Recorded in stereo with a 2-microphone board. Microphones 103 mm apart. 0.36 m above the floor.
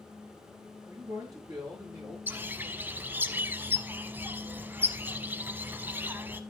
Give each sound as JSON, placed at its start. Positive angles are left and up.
{"t": 0.8, "sound": "a man speaking", "side_deg": -30, "distance_m": 6.0}
{"t": 2.3, "sound": "a bird", "side_deg": -20, "distance_m": 0.7}